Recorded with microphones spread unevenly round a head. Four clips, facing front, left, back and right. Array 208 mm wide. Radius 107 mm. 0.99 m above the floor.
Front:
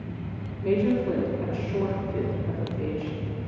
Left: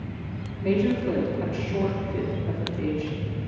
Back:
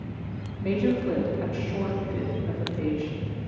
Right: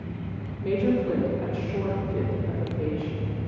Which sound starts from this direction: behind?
A woman speaking, at 0.6 s.